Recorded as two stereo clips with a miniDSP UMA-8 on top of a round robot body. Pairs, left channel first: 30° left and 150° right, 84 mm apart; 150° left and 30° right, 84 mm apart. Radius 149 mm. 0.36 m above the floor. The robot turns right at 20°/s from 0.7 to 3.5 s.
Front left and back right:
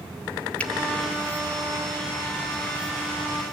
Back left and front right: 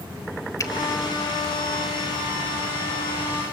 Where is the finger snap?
100° left, 1.4 m; by 0.7 s 105° left, 1.4 m.